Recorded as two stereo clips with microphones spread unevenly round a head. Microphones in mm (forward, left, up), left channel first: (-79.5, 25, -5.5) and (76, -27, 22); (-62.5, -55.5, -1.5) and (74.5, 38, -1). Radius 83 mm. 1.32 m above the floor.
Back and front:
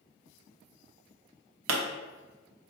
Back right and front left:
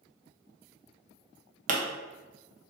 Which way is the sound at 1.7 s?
10° right.